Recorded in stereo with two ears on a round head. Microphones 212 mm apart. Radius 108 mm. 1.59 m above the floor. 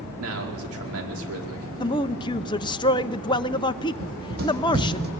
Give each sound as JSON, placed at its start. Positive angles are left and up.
{"t": 0.2, "sound": "a man speaking", "side_deg": -65, "distance_m": 4.5}
{"t": 1.8, "sound": "a man speaking", "side_deg": 20, "distance_m": 0.7}
{"t": 4.0, "sound": "running footsteps", "side_deg": -40, "distance_m": 3.5}